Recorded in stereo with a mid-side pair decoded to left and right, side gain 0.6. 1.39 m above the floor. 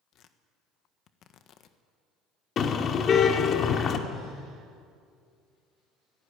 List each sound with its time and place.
0.1 s tearing paper: 55° left, 1.5 m
2.6 s a car horn: 45° left, 2 m